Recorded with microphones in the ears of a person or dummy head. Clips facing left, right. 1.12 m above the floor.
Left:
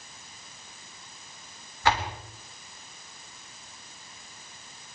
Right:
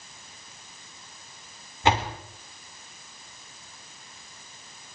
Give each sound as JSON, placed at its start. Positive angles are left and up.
{"t": 1.8, "sound": "a door slam", "side_deg": -20, "distance_m": 3.0}